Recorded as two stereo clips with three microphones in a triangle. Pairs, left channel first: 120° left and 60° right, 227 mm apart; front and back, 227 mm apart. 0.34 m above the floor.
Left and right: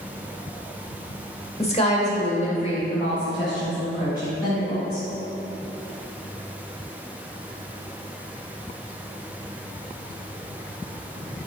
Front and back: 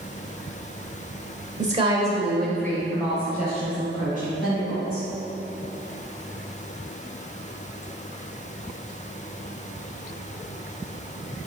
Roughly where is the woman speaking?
Behind.